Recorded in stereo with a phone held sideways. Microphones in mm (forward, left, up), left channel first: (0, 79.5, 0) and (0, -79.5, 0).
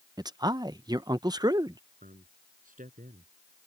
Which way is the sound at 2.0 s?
60° right (ahead or behind).